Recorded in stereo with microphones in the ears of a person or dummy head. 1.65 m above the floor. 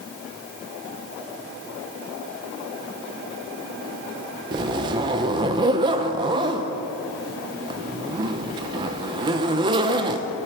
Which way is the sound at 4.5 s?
25° right (ahead or behind).